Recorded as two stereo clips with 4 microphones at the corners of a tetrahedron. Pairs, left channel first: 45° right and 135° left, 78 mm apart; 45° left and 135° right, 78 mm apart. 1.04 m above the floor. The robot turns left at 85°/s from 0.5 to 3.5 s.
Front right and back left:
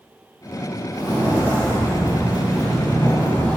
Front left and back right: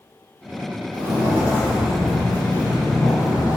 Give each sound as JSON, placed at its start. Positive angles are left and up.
{"t": 0.9, "sound": "footsteps", "azimuth_deg": -125, "distance_m": 1.6}